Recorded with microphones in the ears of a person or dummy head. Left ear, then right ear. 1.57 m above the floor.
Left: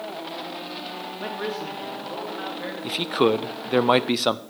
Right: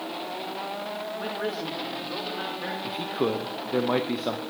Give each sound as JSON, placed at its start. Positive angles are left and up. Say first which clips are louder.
{"t": 1.2, "sound": "a man speaking", "louder": "left 3 dB", "side_deg": 10, "distance_m": 1.6}
{"t": 2.8, "sound": "a man speaking", "louder": "left 8 dB", "side_deg": 75, "distance_m": 0.6}